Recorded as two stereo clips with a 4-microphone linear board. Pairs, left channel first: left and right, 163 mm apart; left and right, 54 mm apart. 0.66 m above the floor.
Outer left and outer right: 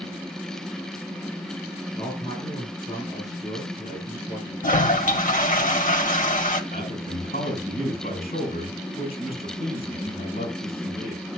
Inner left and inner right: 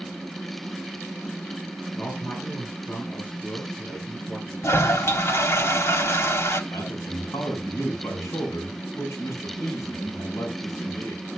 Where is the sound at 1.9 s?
35° left (ahead or behind), 8 m.